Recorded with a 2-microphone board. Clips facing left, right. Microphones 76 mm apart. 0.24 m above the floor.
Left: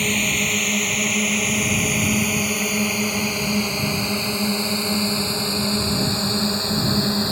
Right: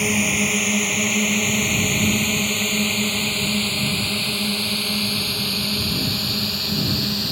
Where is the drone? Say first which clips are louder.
Right 2 dB; 10° right (ahead or behind); by 7.3 s 30° left (ahead or behind).